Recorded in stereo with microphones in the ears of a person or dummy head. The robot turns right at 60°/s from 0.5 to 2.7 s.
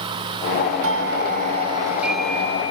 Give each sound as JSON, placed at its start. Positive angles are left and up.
{"t": 0.8, "sound": "a doorbell", "azimuth_deg": -80}